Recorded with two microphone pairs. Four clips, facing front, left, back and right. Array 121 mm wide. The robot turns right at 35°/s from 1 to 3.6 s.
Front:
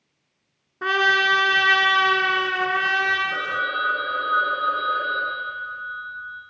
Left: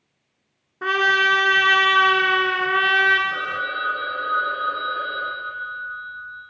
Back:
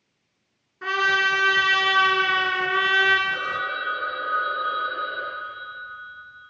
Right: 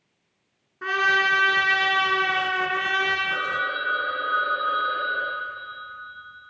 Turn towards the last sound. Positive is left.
turn(degrees=0)